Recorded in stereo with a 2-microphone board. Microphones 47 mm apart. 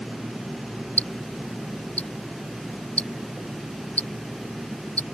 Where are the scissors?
No scissors in this recording.